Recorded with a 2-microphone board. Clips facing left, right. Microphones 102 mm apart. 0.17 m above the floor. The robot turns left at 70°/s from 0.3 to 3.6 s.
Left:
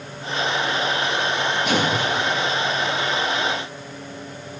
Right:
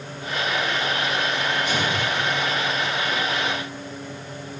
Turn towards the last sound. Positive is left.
turn(degrees=-60)